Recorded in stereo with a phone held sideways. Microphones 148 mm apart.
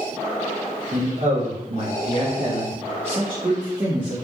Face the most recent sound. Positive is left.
turn(degrees=-25)  # may be behind; listen again after turning